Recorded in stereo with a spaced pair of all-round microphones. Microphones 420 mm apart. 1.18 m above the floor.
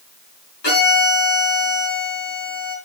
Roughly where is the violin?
Left.